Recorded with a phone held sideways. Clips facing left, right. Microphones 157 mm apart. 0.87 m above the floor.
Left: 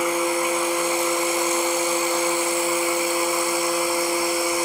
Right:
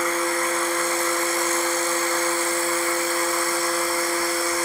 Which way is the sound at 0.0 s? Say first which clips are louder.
Left 2 dB; 15° left (ahead or behind).